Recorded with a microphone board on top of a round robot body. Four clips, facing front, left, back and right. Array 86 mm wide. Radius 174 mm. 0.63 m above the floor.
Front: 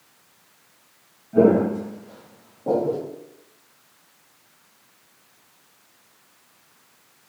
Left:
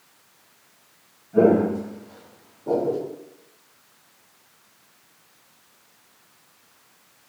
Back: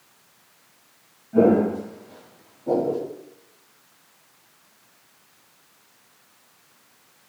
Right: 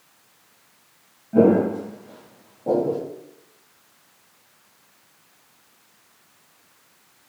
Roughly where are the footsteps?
Right.